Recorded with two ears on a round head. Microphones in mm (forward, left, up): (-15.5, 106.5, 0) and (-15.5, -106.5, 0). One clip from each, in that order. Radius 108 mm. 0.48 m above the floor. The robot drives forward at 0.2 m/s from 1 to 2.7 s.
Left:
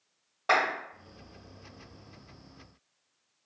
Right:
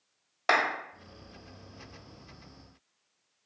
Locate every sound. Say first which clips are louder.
0.5 s a clap: even; 70° right (ahead or behind), 1.9 m